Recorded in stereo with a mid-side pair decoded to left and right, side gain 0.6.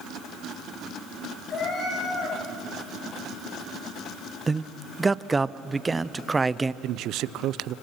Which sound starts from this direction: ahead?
A man speaking, at 4.5 s.